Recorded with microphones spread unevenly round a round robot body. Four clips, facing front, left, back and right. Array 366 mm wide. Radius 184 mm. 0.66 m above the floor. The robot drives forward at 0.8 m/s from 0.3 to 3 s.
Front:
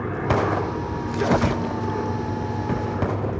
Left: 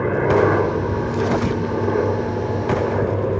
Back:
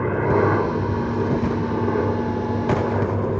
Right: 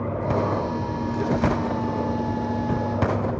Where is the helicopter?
135° left.